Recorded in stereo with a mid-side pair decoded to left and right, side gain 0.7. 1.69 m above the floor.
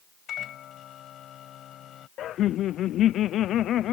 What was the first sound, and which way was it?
A microwave, 45° left.